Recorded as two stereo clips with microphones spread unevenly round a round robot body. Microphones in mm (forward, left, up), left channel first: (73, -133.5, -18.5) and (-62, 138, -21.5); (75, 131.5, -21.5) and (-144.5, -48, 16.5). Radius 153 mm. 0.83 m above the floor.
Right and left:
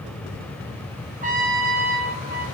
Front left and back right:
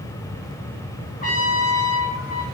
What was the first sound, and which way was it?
A trumpet, 65° left.